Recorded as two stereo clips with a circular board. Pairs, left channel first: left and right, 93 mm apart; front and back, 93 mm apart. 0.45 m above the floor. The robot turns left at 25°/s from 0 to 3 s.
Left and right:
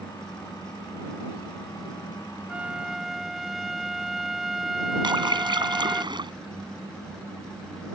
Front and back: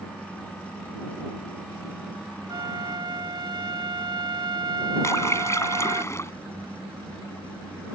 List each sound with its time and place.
2.5 s a flute: 165° right; by 6.0 s 175° right
5.0 s a splash: 60° right